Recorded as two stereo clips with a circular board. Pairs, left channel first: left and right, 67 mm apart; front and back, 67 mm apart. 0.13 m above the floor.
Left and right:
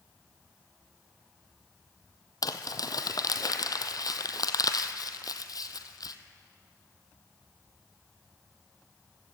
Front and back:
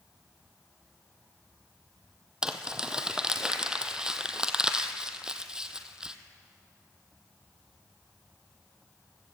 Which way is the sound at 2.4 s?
105° left.